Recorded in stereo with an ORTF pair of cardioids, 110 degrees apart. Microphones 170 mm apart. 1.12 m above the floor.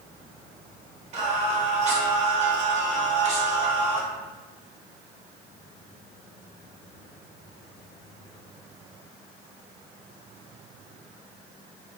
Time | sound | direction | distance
1.1 | singing | 40° right | 0.9 m